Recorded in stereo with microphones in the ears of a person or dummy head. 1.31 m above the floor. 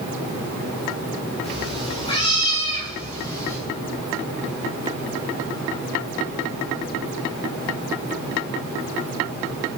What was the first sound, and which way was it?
A cat meowing, 30° left (ahead or behind).